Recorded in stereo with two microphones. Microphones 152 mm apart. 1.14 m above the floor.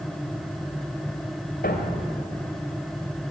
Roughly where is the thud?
Left.